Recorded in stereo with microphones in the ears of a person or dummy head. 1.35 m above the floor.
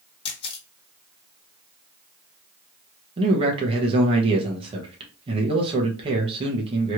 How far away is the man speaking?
About 1.0 m.